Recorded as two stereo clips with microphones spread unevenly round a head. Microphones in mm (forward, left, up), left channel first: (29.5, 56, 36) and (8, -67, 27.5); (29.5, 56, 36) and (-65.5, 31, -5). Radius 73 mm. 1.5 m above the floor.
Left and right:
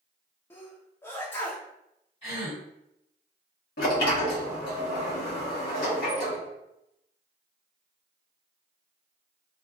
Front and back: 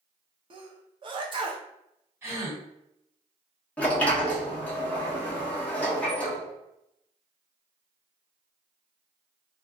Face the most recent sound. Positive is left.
turn(degrees=85)